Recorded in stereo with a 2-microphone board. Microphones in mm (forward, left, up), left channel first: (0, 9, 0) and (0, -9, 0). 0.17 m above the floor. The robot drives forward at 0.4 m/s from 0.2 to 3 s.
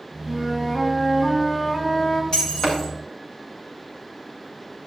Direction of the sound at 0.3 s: 35° left (ahead or behind).